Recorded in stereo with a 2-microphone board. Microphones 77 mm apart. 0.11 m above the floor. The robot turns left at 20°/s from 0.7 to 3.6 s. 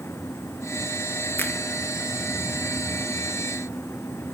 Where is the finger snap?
25° left (ahead or behind), 1.7 m.